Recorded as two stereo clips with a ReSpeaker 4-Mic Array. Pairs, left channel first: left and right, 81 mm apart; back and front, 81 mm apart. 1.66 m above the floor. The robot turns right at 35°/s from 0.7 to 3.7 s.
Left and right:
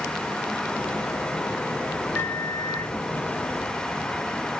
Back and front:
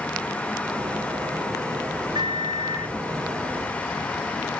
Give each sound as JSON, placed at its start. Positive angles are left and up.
{"t": 2.1, "sound": "a microwave", "azimuth_deg": 25, "distance_m": 0.9}